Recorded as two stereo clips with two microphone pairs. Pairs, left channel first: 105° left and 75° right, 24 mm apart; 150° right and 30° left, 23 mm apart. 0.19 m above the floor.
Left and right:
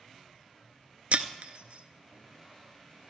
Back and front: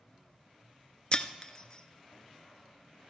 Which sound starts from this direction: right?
Breaking glass, at 1.1 s.